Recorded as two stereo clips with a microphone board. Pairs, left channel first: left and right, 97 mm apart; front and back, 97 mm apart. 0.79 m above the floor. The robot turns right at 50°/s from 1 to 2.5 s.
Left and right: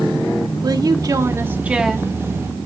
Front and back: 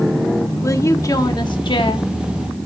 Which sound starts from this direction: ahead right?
A woman speaking, at 0.6 s.